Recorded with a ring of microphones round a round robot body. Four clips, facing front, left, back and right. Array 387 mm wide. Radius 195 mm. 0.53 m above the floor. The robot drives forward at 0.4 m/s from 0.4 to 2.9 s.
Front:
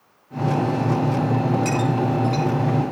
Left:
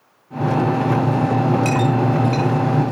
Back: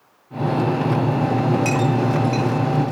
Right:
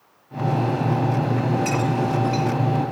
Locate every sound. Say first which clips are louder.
1.6 s a clink: left 4 dB, back 2 dB; 85° left, 8.5 m